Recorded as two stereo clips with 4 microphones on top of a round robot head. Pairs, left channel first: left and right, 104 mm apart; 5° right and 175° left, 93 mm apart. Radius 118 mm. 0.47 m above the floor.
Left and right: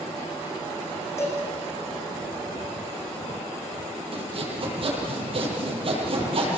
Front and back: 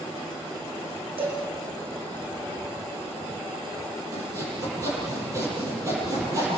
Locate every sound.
1.2 s a cowbell: 155° left, 9 m
4.1 s sawing: 125° right, 8 m